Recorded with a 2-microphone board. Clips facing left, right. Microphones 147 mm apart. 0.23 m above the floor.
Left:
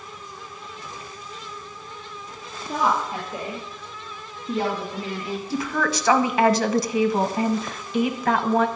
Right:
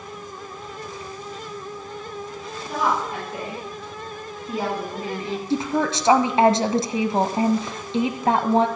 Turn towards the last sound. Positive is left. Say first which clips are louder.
# right 3 dB
turn(degrees=-25)  # may be behind; listen again after turning